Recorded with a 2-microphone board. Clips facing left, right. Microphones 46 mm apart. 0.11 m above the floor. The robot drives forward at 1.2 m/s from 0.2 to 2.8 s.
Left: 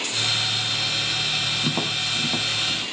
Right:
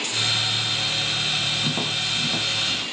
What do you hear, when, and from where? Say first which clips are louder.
1.6 s tapping: even; 15° left (ahead or behind), 1.8 m; by 2.8 s 10° left (ahead or behind), 3 m